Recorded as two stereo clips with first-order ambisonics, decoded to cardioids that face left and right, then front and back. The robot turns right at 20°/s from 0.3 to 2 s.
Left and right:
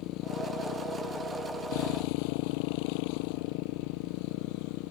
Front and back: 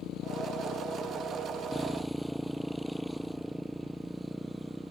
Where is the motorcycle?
55° left; by 4.9 s 90° left.